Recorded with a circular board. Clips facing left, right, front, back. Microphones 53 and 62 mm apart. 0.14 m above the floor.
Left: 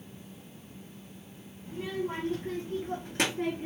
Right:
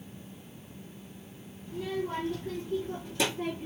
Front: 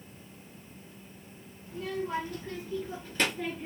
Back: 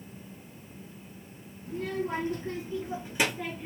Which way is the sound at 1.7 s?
145° left.